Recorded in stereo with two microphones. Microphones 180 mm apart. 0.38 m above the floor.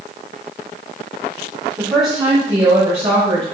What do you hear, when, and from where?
1.8 s a woman speaking: 20° right (ahead or behind), 2.5 m; by 3.5 s 35° right (ahead or behind), 4.5 m